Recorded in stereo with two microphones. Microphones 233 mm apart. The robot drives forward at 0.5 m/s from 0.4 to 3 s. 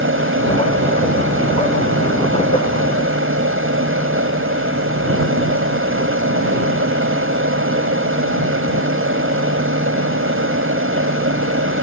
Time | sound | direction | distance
0.0 | an aircraft | 60° right (ahead or behind) | ?